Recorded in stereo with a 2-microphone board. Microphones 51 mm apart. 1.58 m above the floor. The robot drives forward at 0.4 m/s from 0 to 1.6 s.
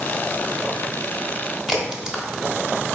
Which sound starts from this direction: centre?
A crack, at 1.7 s.